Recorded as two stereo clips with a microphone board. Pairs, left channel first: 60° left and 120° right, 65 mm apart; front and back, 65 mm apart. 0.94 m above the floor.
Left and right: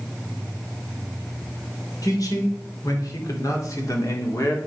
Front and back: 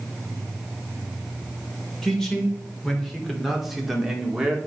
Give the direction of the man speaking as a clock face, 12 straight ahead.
9 o'clock.